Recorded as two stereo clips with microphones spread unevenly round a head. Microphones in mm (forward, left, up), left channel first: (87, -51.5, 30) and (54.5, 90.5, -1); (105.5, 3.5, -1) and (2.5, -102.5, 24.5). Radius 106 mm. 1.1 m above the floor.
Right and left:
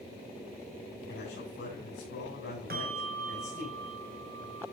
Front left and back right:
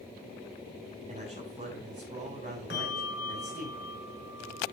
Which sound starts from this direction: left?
A bell, at 2.7 s.